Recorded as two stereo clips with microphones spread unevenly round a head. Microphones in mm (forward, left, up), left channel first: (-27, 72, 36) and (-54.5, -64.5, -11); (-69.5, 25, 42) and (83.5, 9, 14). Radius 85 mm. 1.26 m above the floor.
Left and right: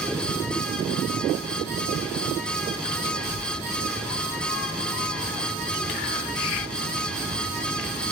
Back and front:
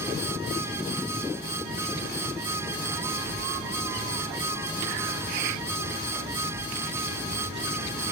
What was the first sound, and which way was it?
A child speaking, 85° right.